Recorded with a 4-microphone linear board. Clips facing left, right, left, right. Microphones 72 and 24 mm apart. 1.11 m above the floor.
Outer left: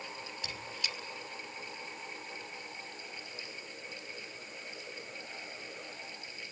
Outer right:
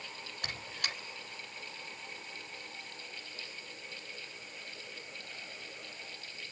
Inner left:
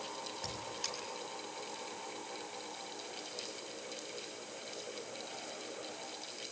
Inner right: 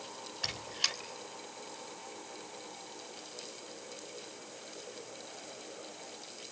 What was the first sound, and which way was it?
A squeak, 55° right (ahead or behind).